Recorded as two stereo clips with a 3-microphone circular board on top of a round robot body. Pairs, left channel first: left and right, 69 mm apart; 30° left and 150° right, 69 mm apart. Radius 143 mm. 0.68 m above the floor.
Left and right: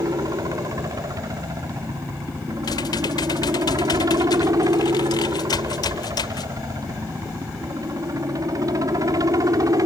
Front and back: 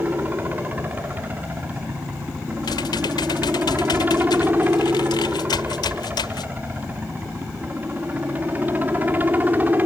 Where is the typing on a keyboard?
55° left.